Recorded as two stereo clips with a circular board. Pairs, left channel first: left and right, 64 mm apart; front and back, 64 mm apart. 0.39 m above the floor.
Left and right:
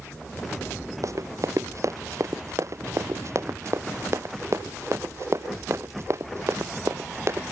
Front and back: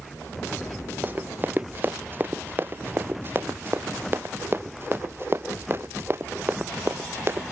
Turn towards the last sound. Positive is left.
turn(degrees=-130)